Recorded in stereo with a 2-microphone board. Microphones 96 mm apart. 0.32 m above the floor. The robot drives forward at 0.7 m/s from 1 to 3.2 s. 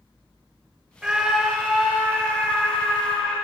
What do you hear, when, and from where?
1.0 s a scream: 10° right (ahead or behind), 0.9 m; by 3.4 s 5° right (ahead or behind), 2 m